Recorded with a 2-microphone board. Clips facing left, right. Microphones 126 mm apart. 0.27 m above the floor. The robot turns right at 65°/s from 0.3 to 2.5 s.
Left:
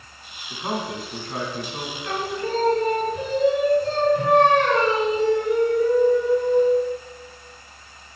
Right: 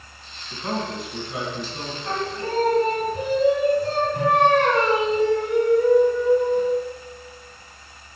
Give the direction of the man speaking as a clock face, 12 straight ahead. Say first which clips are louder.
Even; 11 o'clock.